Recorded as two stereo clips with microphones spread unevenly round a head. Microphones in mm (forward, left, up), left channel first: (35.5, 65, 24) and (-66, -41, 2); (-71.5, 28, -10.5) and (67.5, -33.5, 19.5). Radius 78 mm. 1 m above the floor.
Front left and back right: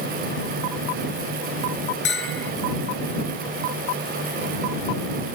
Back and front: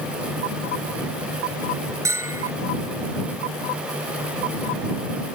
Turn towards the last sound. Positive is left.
turn(degrees=50)